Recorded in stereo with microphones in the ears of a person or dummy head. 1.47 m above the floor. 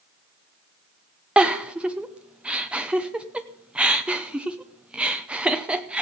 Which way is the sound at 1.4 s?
Centre (ahead or behind).